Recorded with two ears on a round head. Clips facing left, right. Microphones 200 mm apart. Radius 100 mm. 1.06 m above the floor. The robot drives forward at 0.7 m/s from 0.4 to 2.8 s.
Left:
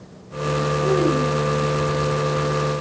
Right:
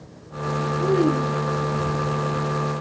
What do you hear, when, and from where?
0.8 s a child speaking: 10° right (ahead or behind), 5 m